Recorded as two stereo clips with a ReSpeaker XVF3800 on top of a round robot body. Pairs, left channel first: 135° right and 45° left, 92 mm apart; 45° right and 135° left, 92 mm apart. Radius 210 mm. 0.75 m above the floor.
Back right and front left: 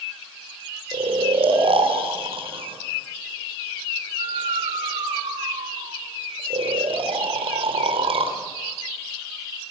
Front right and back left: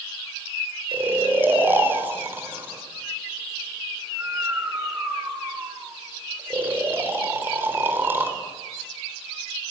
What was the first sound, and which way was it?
Snoring, 65° left.